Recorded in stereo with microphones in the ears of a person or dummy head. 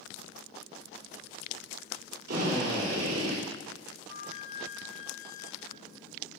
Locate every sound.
2.3 s a drill: 55° right (ahead or behind), 4 m
4.1 s a flute: 40° left (ahead or behind), 2 m